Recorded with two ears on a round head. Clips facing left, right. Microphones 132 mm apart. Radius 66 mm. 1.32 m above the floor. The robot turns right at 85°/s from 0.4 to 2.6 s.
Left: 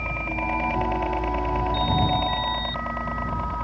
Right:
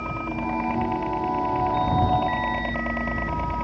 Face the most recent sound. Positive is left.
turn(degrees=-155)